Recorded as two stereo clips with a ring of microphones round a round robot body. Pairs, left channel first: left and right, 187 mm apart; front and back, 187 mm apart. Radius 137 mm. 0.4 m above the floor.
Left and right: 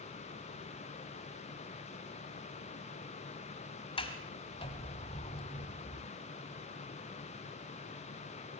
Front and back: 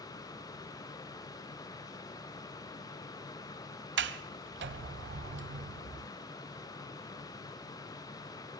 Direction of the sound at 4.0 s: 160° left.